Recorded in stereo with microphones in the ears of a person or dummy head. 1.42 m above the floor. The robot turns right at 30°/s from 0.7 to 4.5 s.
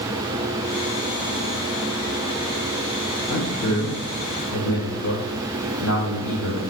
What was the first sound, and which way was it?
A man speaking, 45° left (ahead or behind).